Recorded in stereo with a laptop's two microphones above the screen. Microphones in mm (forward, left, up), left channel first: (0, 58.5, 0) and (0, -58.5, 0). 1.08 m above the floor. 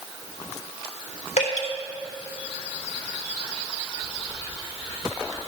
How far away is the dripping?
About 3 m.